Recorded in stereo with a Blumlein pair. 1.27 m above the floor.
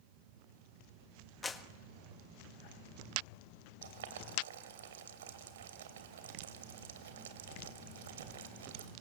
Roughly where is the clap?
Ahead.